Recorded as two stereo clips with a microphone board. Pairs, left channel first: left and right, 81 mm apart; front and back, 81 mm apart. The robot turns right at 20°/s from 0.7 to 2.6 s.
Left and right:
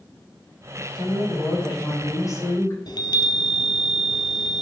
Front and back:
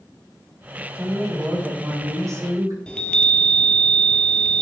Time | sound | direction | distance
0.9 | a woman speaking | 105° left | 5.5 m
2.9 | a chime | 75° left | 1.8 m